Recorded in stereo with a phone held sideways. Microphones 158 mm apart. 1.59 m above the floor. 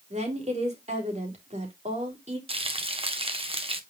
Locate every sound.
0.1 s a woman speaking: 45° right (ahead or behind), 3.5 m
2.5 s frying: 35° right (ahead or behind), 1.3 m